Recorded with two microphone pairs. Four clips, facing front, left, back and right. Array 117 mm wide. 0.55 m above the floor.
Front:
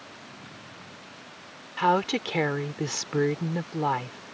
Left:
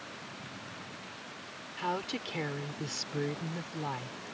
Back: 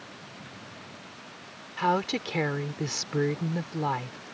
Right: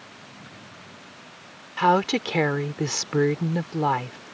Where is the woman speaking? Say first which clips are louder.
Right 15 dB, front 3 dB; 75° right.